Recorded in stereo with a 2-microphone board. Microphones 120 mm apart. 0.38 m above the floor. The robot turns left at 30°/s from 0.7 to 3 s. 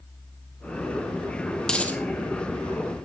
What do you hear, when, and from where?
1.6 s a dropped coin: 5° left (ahead or behind), 1.4 m; by 2.0 s 15° left (ahead or behind), 1.4 m